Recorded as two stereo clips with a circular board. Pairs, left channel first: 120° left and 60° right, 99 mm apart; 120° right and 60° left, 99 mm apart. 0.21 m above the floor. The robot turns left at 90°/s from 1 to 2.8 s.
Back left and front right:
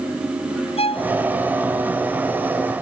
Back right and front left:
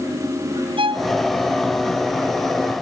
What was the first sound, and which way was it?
A violin, 95° left.